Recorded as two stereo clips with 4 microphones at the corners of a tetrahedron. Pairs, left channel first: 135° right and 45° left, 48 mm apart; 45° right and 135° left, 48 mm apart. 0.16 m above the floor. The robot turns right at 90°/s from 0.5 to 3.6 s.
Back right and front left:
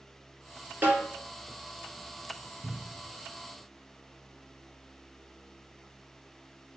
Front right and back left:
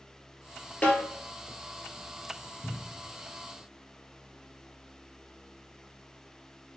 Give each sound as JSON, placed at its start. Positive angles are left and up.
{"t": 0.8, "sound": "a snare drum", "azimuth_deg": 5, "distance_m": 1.6}
{"t": 2.6, "sound": "a cupboard door", "azimuth_deg": 25, "distance_m": 0.6}